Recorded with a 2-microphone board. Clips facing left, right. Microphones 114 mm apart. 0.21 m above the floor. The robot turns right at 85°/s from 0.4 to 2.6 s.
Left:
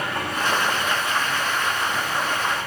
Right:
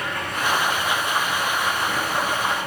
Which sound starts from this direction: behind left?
Running water, at 0.0 s.